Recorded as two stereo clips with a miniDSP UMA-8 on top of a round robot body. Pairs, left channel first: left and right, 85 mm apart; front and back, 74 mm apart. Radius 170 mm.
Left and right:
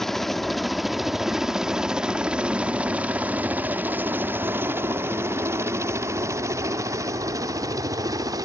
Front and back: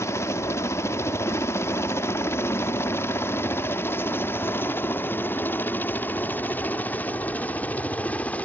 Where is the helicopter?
5° left; by 8.4 s 65° right.